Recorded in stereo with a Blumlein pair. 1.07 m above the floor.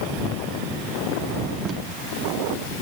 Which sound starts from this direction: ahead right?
Tape being pulled, at 1.6 s.